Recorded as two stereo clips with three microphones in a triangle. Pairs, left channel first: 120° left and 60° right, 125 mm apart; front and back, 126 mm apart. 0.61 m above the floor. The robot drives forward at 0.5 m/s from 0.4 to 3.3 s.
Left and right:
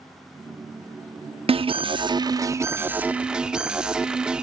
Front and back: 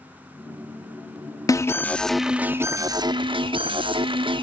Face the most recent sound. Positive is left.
turn(degrees=-140)